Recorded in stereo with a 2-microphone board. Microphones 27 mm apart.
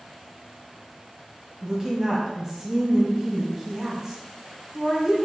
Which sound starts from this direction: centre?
A woman speaking, at 1.6 s.